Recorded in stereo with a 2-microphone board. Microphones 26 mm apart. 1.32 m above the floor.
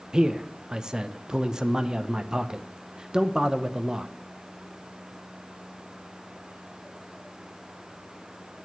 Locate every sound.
0.1 s a man speaking: 25° right (ahead or behind), 0.5 m